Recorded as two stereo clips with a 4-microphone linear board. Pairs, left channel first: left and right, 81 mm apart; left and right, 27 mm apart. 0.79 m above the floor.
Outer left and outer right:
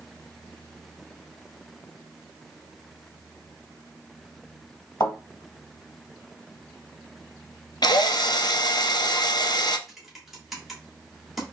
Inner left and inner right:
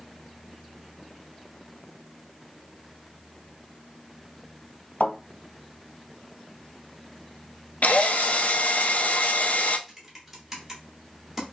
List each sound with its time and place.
5.0 s a thud: 65° left (ahead or behind), 2.0 m
7.8 s a drill: 60° left (ahead or behind), 0.5 m
9.9 s typing on a keyboard: 5° right (ahead or behind), 1.6 m